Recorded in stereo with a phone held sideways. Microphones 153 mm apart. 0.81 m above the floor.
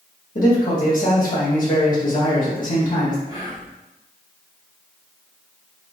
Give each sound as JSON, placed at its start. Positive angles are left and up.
{"t": 0.3, "sound": "a man speaking", "side_deg": 65, "distance_m": 1.1}
{"t": 3.3, "sound": "whispering", "side_deg": -25, "distance_m": 0.9}